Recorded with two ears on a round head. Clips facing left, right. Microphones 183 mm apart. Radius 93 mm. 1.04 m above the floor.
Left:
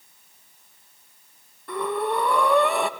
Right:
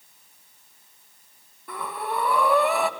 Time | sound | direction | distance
1.7 | breathing | 5° right (ahead or behind) | 2.0 m